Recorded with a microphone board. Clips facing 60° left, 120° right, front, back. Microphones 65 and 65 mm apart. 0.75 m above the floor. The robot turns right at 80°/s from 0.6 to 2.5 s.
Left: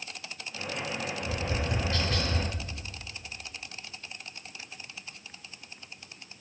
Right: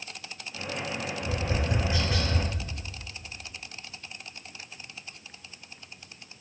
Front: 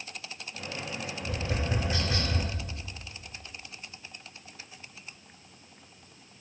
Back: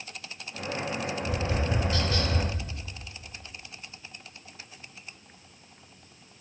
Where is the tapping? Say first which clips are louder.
Right 3 dB, back 1 dB; 120° right, 1.1 m; by 2.4 s 20° right, 1.1 m.